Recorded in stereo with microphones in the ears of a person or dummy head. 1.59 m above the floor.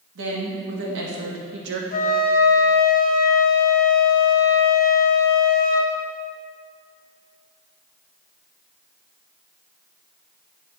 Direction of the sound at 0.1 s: 75° right (ahead or behind).